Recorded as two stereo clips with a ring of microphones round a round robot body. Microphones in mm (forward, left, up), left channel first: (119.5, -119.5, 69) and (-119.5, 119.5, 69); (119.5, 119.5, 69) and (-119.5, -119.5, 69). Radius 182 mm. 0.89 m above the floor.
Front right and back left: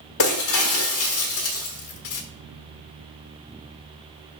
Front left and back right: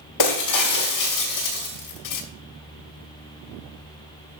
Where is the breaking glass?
5° left, 1.0 m.